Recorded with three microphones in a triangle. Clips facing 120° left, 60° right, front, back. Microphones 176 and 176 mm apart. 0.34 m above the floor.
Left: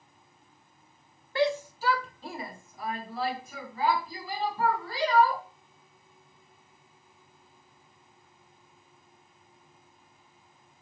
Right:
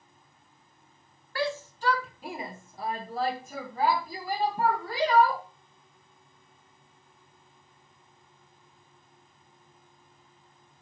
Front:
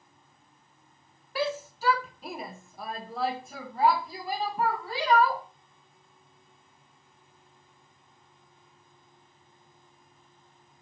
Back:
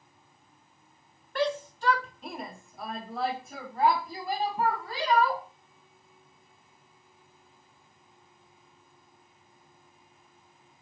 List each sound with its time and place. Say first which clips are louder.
1.4 s a shout: left 4 dB, back 2 dB; 80° left, 1.2 m; by 5.4 s 90° right, 3 m